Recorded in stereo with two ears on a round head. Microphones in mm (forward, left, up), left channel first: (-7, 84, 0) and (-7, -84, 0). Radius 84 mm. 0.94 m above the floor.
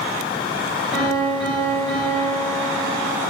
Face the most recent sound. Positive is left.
turn(degrees=-5)  # may be behind; listen again after turning